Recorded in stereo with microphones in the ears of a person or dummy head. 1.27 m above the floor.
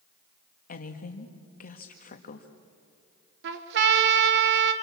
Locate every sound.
0.7 s a woman speaking: 45° left (ahead or behind), 1.7 m
3.4 s a trumpet: 70° right (ahead or behind), 1.9 m